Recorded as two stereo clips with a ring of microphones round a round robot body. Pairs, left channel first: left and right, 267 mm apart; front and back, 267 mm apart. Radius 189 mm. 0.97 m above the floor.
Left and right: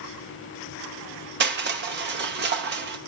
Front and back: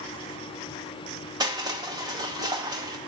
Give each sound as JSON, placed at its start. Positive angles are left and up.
{"t": 1.4, "sound": "crushing", "azimuth_deg": -110, "distance_m": 1.1}